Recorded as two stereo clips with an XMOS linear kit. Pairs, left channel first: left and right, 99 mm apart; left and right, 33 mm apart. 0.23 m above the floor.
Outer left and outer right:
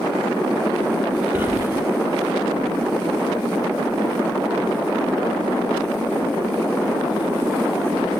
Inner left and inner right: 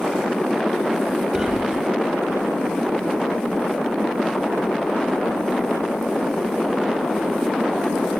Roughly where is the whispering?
Centre.